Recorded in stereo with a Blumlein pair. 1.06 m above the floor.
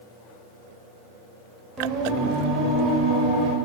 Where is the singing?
25° right, 1.8 m.